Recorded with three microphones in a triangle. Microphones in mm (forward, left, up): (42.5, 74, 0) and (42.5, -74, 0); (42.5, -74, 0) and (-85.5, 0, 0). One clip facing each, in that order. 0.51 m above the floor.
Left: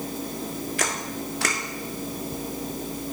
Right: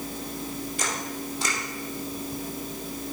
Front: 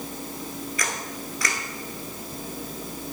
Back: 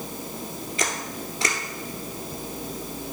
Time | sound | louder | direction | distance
0.8 | a camera shutter | left 2 dB, back 2 dB | 90° left | 1.3 m